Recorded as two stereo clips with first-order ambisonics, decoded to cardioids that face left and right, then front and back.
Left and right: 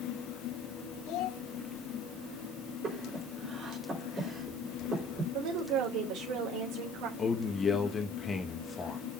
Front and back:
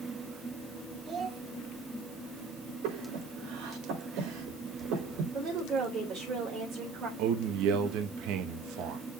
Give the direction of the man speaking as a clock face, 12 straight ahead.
7 o'clock.